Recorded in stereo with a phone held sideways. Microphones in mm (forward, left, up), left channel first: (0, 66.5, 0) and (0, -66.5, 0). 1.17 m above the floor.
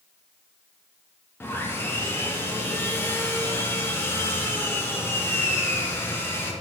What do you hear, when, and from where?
1.4 s sawing: 15° left (ahead or behind), 0.6 m